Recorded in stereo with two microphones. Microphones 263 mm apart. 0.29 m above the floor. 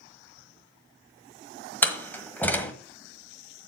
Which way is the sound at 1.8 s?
5° left (ahead or behind).